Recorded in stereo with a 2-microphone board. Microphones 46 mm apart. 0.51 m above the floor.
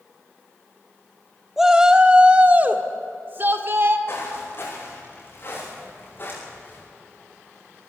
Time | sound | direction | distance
1.6 | a shout | 5° right (ahead or behind) | 1.2 m
4.1 | footsteps | 50° left (ahead or behind) | 9.5 m